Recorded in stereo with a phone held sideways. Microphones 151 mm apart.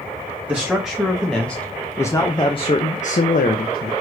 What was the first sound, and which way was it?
A man speaking, 10° right (ahead or behind).